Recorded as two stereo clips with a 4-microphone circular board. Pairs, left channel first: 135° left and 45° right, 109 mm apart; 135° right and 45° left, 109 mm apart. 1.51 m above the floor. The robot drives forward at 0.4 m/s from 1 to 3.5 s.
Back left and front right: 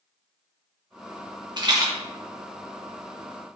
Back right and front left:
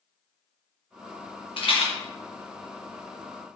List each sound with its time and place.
1.6 s a rattle: 95° right, 0.9 m; by 1.9 s 105° right, 0.9 m